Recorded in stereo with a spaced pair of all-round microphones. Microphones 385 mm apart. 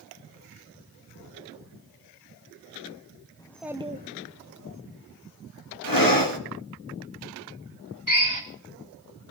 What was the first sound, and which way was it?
A child speaking, 10° left (ahead or behind).